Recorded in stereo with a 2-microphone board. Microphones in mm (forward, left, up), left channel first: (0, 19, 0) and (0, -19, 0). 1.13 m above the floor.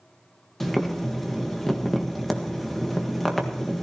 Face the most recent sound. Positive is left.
turn(degrees=5)  # may be behind; listen again after turning